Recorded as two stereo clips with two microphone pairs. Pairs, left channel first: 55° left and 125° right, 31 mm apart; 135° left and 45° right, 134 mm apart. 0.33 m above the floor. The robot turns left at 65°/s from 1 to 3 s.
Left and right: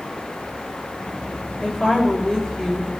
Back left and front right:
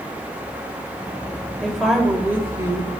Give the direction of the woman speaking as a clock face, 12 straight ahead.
10 o'clock.